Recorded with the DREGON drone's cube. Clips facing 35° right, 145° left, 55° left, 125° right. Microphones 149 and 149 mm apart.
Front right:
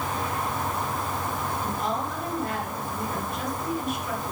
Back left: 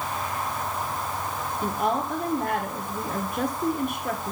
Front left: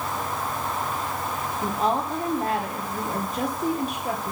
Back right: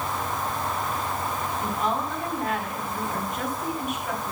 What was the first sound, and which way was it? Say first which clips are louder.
A woman speaking: back left 6 dB, front left 4 dB; 110° left.